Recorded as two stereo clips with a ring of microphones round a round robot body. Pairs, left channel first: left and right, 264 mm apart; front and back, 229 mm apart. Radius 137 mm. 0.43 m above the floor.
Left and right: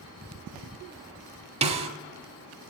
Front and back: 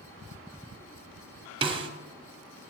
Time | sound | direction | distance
1.6 | a snare drum | 130° right | 1.1 m